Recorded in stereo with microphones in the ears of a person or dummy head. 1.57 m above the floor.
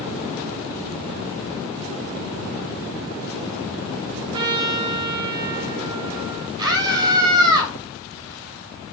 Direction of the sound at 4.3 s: 30° right (ahead or behind).